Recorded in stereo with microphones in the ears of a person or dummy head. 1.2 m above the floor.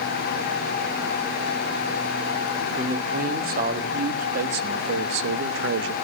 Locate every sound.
2.8 s a man speaking: 40° right (ahead or behind), 3 m; by 5.9 s 70° right (ahead or behind), 1.0 m